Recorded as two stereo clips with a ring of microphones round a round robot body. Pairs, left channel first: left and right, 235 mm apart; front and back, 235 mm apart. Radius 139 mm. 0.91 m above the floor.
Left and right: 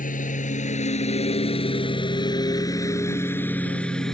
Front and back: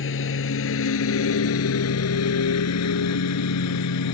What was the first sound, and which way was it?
A lawn mower, 35° left.